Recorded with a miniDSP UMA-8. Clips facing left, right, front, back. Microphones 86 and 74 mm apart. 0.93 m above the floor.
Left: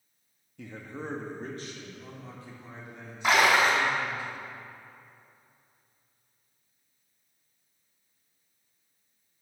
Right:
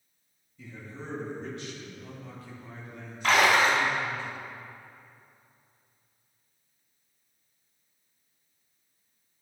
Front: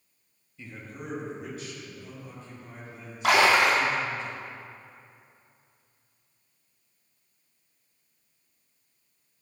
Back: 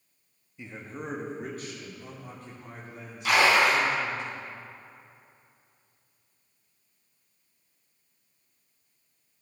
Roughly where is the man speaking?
Left.